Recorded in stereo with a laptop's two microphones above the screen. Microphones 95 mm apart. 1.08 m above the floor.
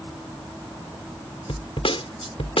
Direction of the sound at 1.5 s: 75° left (ahead or behind).